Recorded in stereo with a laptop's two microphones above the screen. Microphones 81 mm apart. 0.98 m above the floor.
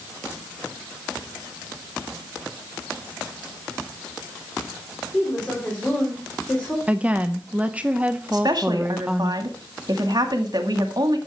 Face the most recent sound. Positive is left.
turn(degrees=-55)  # may be behind; listen again after turning